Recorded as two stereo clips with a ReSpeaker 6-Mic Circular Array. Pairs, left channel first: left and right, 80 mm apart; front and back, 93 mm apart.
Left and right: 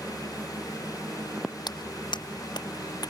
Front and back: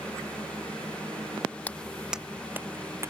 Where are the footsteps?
70° left; by 3.1 s 120° left.